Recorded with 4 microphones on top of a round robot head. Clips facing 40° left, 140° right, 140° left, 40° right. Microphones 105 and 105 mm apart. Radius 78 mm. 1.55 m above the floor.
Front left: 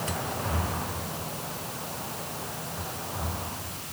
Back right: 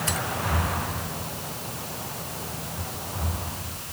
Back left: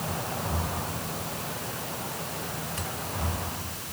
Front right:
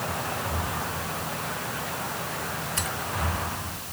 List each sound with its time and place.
Only background noise.